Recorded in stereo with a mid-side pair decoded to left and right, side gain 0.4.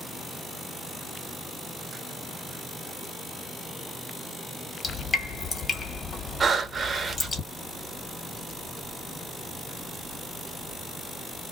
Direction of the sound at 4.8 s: 40° left.